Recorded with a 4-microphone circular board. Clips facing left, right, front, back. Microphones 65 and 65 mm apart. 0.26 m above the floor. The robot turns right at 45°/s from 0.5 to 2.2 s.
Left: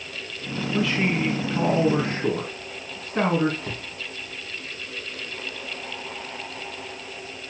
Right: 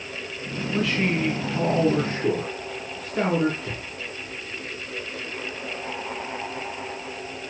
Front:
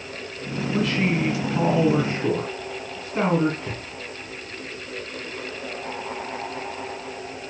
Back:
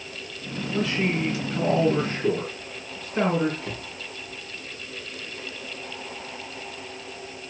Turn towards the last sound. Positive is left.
turn(degrees=70)